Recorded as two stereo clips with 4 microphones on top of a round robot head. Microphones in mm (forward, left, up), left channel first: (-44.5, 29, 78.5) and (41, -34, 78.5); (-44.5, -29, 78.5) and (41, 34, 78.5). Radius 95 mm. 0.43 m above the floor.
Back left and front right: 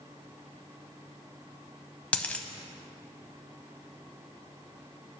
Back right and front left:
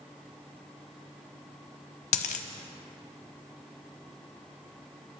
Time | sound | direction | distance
2.1 | a dropped coin | 140° right | 0.7 m